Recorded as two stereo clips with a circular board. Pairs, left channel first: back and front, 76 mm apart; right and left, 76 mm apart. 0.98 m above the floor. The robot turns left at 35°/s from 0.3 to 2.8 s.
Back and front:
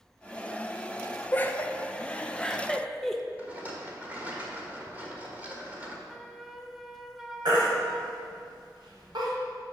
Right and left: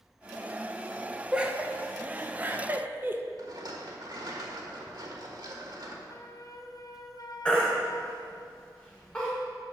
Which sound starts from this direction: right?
A flute, at 6.1 s.